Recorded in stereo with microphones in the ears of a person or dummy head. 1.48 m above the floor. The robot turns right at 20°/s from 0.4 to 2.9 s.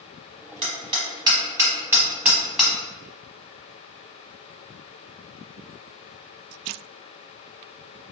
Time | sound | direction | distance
0.6 | hammering | 25° right (ahead or behind) | 0.9 m